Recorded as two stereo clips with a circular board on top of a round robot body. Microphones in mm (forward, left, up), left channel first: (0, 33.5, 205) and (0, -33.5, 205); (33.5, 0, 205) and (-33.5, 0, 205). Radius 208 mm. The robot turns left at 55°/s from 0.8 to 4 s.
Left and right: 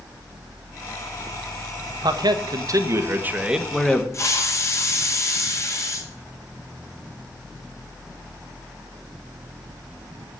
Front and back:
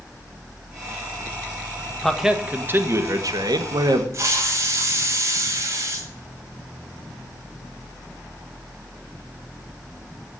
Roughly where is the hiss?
Behind left.